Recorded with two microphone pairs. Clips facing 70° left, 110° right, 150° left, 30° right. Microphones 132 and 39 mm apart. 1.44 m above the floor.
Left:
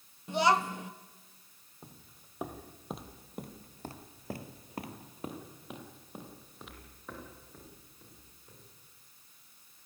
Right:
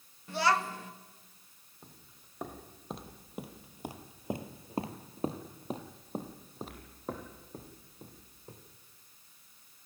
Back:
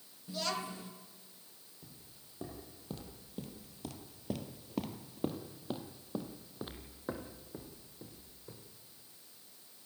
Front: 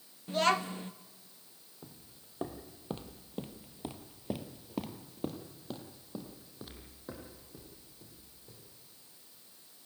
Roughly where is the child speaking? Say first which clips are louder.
Left 2 dB, front 9 dB; ahead.